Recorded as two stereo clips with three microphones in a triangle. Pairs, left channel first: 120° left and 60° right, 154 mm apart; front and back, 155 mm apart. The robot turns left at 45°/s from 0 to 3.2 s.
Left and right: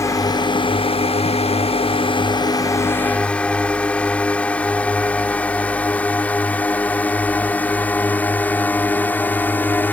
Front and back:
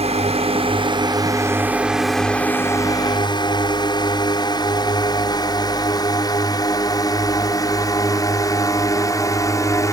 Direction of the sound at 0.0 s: Straight behind.